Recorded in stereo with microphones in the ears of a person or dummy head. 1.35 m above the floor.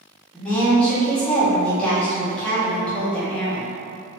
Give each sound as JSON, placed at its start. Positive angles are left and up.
{"t": 0.3, "sound": "a woman speaking", "side_deg": 5, "distance_m": 1.2}